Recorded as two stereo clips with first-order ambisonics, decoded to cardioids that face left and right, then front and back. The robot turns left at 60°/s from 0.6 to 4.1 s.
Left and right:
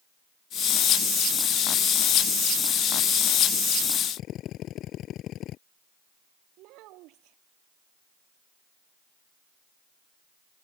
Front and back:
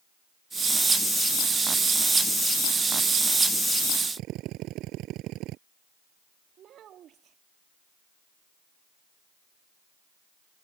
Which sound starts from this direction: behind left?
A drill, at 4.2 s.